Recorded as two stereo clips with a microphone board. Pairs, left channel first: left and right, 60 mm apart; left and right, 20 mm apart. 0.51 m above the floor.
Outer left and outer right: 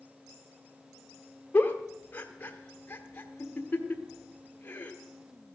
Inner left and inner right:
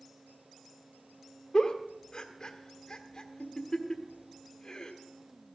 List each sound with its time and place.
1.5 s a giggle: 30° left (ahead or behind), 1.3 m